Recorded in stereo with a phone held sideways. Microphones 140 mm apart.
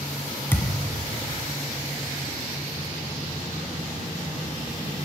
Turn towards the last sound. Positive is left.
turn(degrees=15)  # may be behind; listen again after turning